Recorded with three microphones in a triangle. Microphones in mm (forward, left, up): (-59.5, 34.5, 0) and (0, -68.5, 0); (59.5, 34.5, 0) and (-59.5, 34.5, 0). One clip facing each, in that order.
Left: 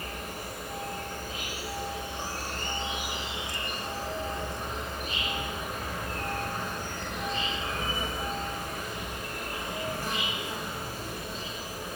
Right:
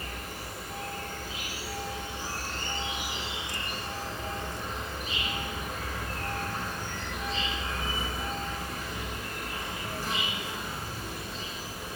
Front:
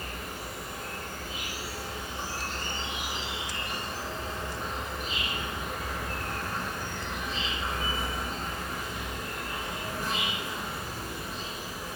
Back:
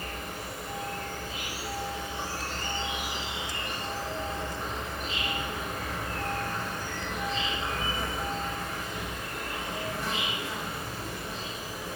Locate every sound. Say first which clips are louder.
0.0 s an insect: left 2 dB, back 1 dB; 90° left, 7.5 m